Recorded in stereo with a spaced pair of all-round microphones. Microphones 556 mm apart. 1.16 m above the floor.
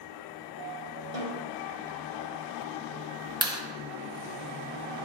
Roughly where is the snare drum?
Right.